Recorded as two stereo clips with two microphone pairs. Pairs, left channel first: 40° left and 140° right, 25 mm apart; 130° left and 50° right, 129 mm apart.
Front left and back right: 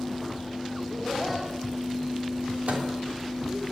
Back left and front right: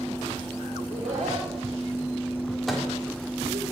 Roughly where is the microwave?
Behind right.